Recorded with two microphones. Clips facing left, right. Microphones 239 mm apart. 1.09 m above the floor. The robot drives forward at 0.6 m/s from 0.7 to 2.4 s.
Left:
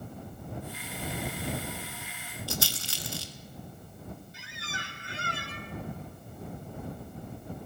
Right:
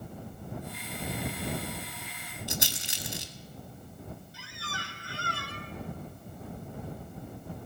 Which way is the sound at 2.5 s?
20° right (ahead or behind).